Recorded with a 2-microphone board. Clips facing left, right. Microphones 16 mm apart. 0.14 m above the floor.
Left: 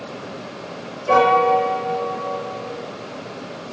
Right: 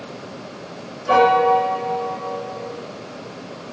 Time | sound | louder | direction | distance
1.1 | a piano | even | 20° right (ahead or behind) | 2.0 m